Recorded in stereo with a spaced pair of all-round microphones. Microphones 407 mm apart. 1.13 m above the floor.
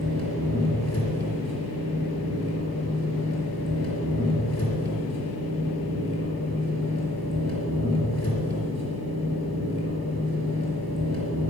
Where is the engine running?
40° left (ahead or behind), 4.5 m.